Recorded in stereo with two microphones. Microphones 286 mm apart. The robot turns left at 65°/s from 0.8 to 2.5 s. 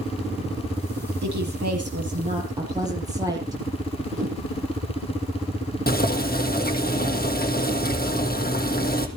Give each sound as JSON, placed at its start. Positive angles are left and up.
{"t": 1.2, "sound": "a woman speaking", "azimuth_deg": -85, "distance_m": 8.0}
{"t": 4.2, "sound": "a whoosh", "side_deg": -25, "distance_m": 6.0}
{"t": 5.9, "sound": "boiling", "side_deg": 35, "distance_m": 2.5}